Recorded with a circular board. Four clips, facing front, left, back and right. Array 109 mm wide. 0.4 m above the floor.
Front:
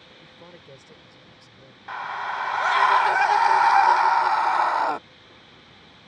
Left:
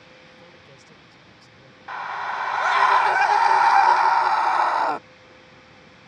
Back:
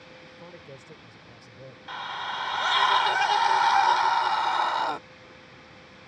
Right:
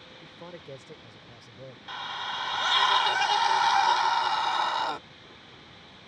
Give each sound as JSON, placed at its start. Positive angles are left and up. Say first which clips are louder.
{"t": 0.2, "sound": "a man speaking", "louder": "right 4 dB, even", "azimuth_deg": -65}
{"t": 1.9, "sound": "a scream", "louder": "left 8 dB, front 4 dB", "azimuth_deg": 60}